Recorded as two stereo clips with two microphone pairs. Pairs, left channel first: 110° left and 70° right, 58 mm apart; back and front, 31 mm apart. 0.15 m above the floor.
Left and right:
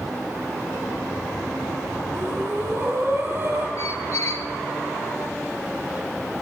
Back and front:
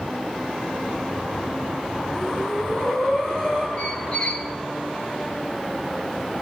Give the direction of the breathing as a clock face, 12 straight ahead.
4 o'clock.